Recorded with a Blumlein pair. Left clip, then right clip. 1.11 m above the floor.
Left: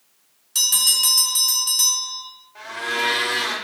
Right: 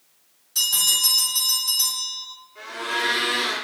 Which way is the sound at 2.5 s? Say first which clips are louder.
Left 2 dB; 40° left.